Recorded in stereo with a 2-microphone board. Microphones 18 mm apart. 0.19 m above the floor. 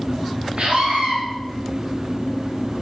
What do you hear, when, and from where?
0.6 s a scream: 55° right (ahead or behind), 2.5 m